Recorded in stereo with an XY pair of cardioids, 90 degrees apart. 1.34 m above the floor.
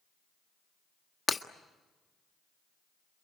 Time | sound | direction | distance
1.3 | breaking glass | 40° left | 1.5 m